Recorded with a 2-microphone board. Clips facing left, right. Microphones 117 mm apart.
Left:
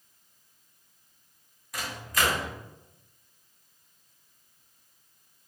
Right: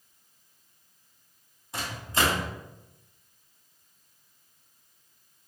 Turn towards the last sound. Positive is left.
turn(degrees=-30)  # may be behind; listen again after turning